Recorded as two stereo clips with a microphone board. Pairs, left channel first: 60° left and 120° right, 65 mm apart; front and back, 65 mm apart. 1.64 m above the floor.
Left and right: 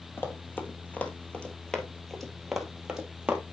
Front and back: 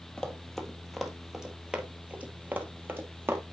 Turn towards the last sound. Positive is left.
turn(degrees=180)